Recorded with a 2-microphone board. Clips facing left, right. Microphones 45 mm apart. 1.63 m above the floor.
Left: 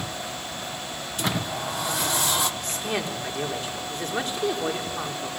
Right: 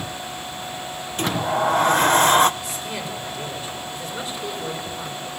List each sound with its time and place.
1.2 s a sliding door: 45° right (ahead or behind), 0.8 m
2.6 s a man speaking: 60° left (ahead or behind), 4.5 m